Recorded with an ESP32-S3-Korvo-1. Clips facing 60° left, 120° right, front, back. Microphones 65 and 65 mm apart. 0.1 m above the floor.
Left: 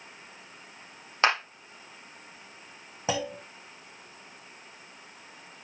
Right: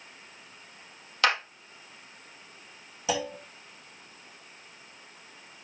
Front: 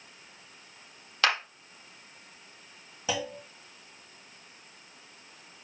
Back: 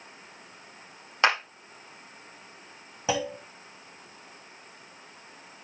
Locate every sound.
1.2 s a clap: 115° left, 2.5 m
3.1 s a clunk: 115° left, 2.5 m